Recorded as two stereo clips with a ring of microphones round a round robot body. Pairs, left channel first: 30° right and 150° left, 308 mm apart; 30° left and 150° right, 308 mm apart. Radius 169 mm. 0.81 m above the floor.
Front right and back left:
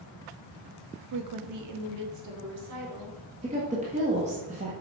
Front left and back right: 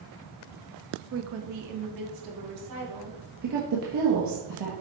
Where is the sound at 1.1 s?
165° left, 0.9 m; by 3.2 s 170° right, 3 m.